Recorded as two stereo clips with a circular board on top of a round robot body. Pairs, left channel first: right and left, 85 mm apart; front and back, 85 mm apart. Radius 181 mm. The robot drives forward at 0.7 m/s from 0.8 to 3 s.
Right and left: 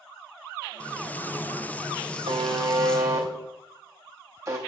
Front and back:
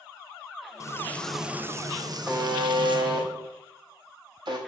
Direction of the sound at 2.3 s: 115° left.